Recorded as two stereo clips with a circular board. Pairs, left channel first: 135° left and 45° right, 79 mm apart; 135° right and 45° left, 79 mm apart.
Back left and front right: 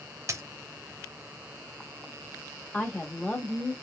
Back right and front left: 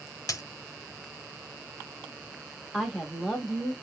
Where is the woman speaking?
135° left, 0.8 m.